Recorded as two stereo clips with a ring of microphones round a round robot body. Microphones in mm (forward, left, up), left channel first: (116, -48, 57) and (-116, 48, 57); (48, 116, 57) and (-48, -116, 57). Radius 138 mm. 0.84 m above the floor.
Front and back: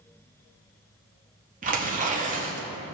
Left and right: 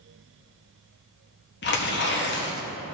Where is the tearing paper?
105° left, 1.8 m.